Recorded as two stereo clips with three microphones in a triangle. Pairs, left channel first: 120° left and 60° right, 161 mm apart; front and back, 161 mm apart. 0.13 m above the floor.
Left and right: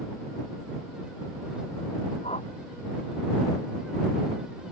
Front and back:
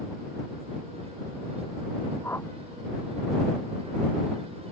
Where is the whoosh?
75° left.